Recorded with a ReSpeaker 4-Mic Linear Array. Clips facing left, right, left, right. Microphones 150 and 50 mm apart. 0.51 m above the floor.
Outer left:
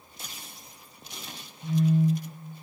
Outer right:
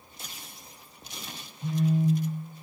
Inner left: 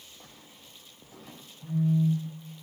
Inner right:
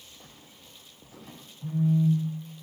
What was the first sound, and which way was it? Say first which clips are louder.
A phone buzzing: outer left 2 dB, inner right 1 dB; 40° right (ahead or behind).